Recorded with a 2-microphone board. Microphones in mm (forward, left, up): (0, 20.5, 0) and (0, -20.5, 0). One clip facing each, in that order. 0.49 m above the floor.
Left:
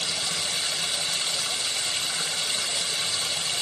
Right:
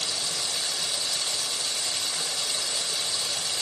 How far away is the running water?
About 0.9 m.